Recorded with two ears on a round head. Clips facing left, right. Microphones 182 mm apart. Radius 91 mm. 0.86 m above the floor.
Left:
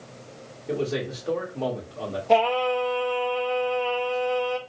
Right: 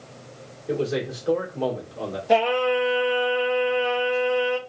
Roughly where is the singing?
Centre.